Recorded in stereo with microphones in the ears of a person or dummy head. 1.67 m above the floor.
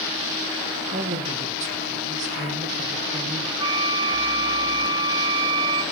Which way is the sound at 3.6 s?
25° right (ahead or behind).